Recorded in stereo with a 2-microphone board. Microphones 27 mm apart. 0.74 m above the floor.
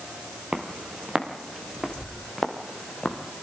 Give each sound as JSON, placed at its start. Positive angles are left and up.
{"t": 0.5, "sound": "footsteps", "side_deg": -30, "distance_m": 4.0}